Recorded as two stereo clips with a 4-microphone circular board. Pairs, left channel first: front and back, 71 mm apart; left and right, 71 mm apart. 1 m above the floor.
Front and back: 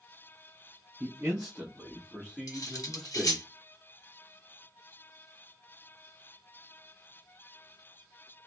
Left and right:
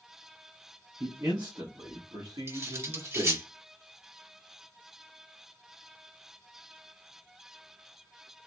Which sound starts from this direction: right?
A man speaking, at 1.0 s.